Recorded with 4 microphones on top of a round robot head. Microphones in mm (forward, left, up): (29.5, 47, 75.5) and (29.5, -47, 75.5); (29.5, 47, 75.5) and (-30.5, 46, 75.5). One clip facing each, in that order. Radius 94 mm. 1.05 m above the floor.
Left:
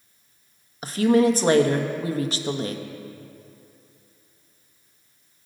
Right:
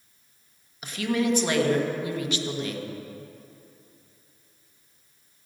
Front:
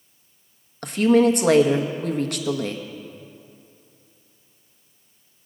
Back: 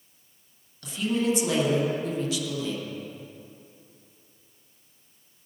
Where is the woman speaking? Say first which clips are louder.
Left 8 dB, front 10 dB; 35° left, 1.3 m.